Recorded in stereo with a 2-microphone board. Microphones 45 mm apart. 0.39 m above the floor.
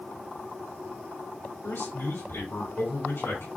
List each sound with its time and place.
1.6 s a man speaking: 70° left (ahead or behind), 2 m